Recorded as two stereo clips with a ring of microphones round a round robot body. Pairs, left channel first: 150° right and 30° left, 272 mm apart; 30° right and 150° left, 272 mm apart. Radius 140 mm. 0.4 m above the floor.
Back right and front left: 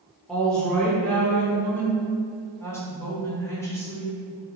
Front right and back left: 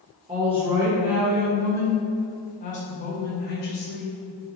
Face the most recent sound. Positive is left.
turn(degrees=-70)